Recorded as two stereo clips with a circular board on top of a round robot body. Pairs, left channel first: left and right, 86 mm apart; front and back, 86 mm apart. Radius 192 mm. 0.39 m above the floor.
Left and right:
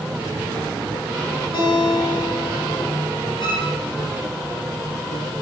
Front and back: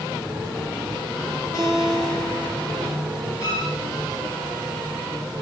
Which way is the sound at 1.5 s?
55° left.